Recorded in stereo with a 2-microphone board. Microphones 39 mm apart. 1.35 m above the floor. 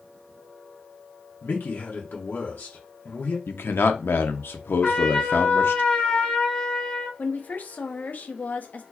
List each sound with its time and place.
1.4 s a man speaking: 65° left (ahead or behind), 0.9 m
3.5 s a man speaking: 85° left, 0.6 m
4.8 s a trumpet: 25° left (ahead or behind), 1.1 m
7.2 s a woman speaking: 45° left (ahead or behind), 0.7 m